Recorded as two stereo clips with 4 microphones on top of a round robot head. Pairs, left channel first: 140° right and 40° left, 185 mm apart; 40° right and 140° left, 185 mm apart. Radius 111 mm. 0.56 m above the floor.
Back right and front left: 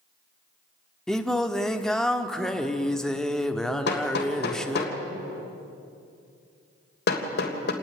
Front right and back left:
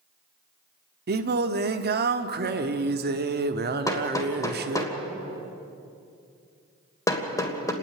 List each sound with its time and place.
1.1 s singing: 130° left, 1.3 m
3.9 s hammering: 110° right, 3 m